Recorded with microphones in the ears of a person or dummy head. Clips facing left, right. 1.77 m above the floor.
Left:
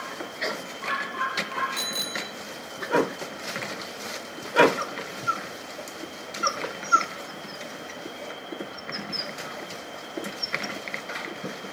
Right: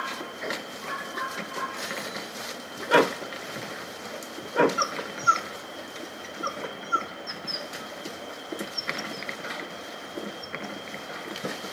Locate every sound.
1.8 s a bicycle bell: 60° left (ahead or behind), 2 m